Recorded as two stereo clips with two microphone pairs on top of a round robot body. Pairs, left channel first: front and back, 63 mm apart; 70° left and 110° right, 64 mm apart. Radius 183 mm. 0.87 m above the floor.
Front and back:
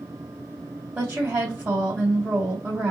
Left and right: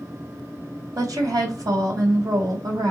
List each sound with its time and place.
0.9 s a woman speaking: 110° right, 1.6 m